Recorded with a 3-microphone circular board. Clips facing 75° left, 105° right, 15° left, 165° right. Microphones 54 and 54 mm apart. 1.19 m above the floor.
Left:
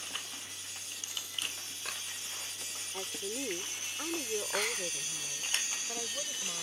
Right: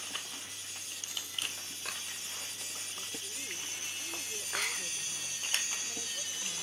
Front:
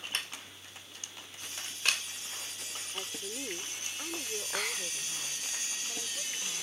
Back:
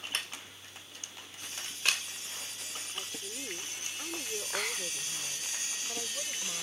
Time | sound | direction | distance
2.9 | a woman speaking | 80° left | ?